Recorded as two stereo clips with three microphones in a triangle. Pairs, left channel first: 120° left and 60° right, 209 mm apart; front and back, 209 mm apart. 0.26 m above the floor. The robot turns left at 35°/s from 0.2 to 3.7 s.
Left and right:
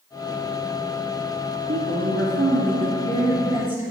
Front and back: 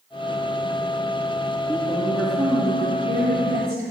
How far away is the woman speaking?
About 2.5 m.